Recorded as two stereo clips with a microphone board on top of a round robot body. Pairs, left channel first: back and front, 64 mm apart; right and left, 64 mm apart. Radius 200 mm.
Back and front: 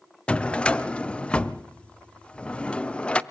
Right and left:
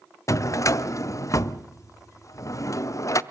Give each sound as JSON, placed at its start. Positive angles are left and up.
{"t": 0.3, "sound": "a drawer", "azimuth_deg": -110, "distance_m": 0.8}